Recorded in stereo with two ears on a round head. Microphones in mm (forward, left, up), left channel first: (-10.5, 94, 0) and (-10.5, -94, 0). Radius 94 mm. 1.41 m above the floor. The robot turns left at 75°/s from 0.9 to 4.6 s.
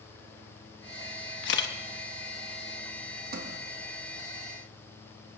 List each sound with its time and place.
1.4 s a camera shutter: 55° left (ahead or behind), 1.0 m; by 1.7 s 45° left (ahead or behind), 1.0 m
3.3 s a sliding door: 45° right (ahead or behind), 1.1 m